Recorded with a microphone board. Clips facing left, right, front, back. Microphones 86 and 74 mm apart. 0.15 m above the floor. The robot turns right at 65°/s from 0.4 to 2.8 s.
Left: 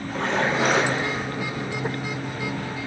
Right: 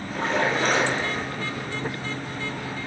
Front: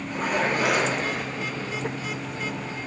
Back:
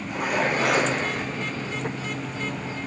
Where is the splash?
105° left, 3.5 m; by 1.3 s 160° left, 3.5 m.